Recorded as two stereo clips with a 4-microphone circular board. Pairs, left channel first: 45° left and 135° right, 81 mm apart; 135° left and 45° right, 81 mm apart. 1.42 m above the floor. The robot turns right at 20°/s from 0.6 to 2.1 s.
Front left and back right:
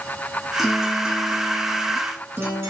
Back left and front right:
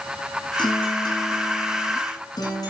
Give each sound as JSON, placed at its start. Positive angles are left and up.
{"t": 0.6, "sound": "a guitar", "azimuth_deg": 135, "distance_m": 8.5}